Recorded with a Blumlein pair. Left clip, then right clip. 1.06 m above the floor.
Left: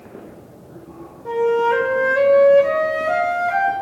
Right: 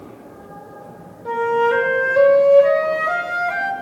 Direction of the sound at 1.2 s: 10° right.